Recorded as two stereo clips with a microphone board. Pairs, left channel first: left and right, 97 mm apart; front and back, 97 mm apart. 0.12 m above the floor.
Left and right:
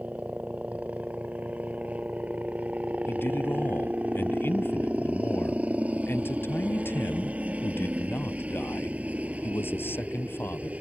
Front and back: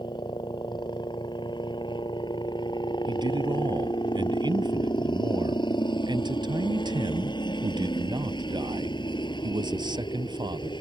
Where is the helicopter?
15° right.